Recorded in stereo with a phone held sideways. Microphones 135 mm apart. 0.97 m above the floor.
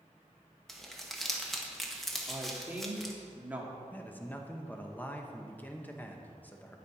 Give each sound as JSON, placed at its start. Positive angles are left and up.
{"t": 0.7, "sound": "crumpling", "side_deg": 0, "distance_m": 1.2}
{"t": 2.3, "sound": "a woman speaking", "side_deg": -10, "distance_m": 1.7}
{"t": 3.9, "sound": "a man speaking", "side_deg": 15, "distance_m": 1.0}